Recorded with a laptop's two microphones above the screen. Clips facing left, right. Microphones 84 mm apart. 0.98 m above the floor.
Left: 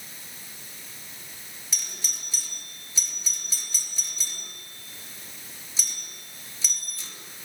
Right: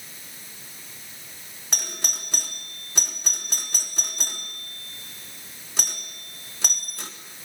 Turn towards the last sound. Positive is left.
turn(degrees=-60)  # may be behind; listen again after turning